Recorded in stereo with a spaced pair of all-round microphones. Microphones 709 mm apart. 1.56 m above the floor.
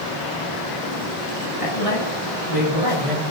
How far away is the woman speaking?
About 8.5 m.